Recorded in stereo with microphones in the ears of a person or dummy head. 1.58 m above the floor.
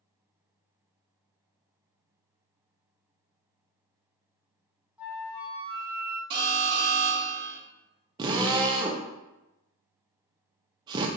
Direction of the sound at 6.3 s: 20° right (ahead or behind).